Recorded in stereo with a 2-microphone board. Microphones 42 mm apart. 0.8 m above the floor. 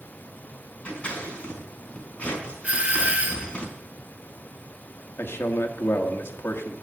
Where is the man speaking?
65° left (ahead or behind), 1.5 m.